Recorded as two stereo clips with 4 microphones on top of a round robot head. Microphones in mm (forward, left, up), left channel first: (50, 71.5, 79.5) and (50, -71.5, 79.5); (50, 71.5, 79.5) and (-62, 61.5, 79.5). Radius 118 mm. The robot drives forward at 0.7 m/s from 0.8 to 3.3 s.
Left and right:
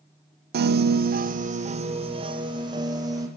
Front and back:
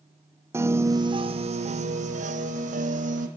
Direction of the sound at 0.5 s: 105° right.